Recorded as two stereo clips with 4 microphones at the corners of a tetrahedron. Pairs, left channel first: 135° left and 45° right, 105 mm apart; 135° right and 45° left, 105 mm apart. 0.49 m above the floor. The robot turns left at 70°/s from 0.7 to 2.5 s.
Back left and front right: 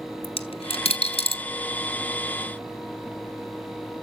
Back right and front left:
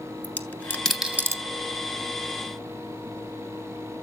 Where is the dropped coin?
150° left, 1.0 m; by 1.4 s 105° left, 1.0 m.